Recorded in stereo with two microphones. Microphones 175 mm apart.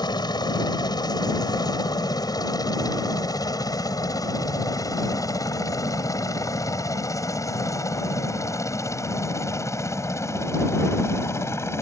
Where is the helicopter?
25° left (ahead or behind); by 11.8 s 15° left (ahead or behind).